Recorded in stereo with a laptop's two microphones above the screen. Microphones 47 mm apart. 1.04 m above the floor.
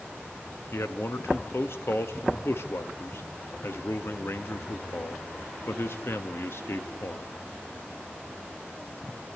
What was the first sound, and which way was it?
A man speaking, 65° left (ahead or behind).